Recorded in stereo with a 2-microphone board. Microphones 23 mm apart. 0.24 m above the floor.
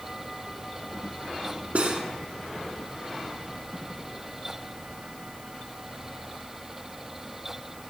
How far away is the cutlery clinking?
About 1.6 m.